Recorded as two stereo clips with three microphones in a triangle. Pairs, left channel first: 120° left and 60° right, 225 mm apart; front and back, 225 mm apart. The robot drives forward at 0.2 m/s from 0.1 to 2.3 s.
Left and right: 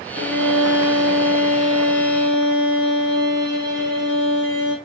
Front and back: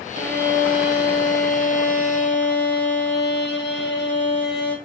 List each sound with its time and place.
0.1 s a violin: 140° left, 1.5 m; by 4.8 s 150° left, 1.8 m